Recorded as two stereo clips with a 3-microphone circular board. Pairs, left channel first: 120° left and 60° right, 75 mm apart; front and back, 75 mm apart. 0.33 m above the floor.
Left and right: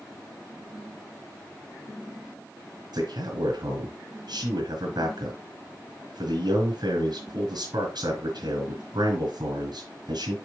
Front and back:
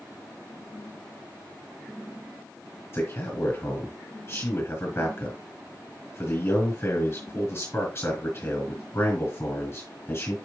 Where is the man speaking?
60° right, 3 m.